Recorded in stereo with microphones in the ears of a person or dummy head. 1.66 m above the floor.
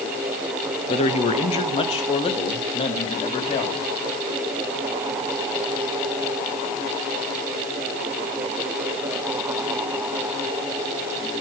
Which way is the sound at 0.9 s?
30° left (ahead or behind).